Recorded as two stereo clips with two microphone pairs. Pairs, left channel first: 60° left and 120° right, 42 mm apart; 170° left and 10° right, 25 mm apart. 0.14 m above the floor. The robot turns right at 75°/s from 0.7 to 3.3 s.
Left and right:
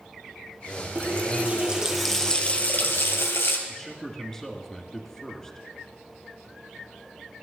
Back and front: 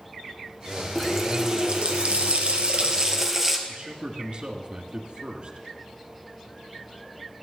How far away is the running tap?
About 2 m.